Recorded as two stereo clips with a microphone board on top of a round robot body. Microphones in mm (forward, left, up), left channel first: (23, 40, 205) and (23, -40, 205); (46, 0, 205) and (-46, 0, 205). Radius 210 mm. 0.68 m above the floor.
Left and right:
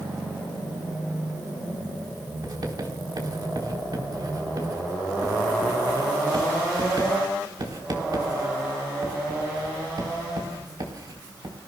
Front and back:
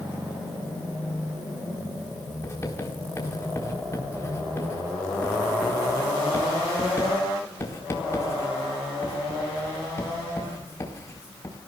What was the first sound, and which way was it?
Writing, 60° right.